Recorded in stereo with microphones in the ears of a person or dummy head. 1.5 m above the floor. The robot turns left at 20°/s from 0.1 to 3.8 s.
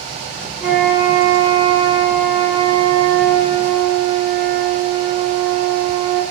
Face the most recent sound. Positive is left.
turn(degrees=-75)